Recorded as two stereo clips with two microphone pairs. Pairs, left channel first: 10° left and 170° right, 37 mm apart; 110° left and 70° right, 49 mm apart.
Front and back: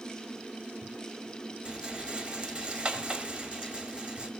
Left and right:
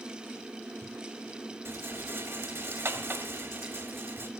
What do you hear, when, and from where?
1.6 s a rattle: 105° right, 1.1 m